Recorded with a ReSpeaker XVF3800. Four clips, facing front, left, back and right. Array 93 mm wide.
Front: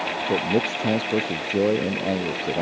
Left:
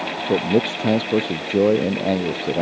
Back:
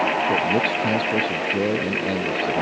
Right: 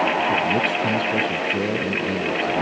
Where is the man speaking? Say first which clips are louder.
Left 1 dB, back 2 dB; 80° left.